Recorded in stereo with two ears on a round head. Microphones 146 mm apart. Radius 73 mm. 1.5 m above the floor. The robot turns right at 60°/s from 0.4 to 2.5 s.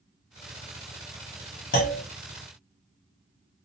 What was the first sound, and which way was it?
A clunk, 65° left (ahead or behind).